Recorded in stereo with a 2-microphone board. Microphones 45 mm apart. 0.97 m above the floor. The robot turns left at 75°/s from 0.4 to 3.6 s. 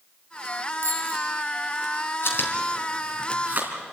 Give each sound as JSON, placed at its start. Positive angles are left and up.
{"t": 0.8, "sound": "a bicycle bell", "side_deg": -55, "distance_m": 6.0}
{"t": 2.2, "sound": "chewing", "side_deg": 60, "distance_m": 3.5}